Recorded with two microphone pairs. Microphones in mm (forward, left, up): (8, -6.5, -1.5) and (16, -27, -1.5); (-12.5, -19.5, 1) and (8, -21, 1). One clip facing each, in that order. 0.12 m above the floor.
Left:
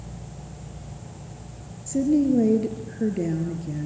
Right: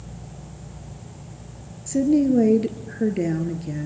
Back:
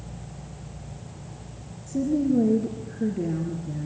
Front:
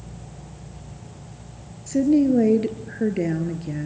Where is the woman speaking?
10° right, 2 m.